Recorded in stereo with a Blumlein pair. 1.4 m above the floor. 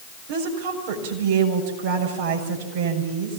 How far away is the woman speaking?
About 7 m.